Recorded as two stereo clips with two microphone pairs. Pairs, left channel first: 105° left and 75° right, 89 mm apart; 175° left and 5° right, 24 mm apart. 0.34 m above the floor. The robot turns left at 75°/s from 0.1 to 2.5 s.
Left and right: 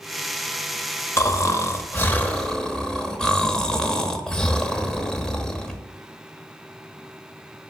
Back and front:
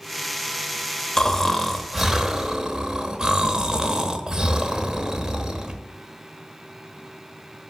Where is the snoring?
130° left, 0.8 m; by 5.8 s 30° left, 0.8 m.